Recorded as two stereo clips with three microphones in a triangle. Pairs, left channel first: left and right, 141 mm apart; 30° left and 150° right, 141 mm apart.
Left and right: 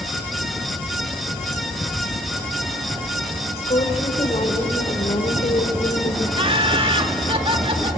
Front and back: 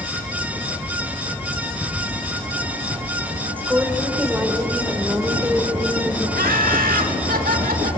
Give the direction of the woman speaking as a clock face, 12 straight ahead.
8 o'clock.